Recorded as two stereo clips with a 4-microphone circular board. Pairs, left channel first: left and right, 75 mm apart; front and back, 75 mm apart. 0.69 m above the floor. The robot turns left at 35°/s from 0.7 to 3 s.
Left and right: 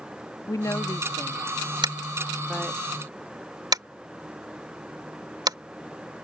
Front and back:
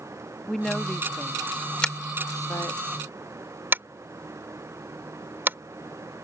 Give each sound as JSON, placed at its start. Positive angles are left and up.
{"t": 0.5, "sound": "a woman speaking", "azimuth_deg": 80}
{"t": 1.8, "sound": "tapping", "azimuth_deg": -80}